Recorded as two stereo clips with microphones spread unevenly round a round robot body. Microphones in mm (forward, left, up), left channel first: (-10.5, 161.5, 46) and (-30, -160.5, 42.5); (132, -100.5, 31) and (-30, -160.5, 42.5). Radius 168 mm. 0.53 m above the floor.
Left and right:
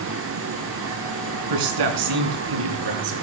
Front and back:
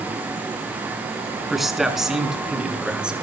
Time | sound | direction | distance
1.5 | a man speaking | 70° right | 5 m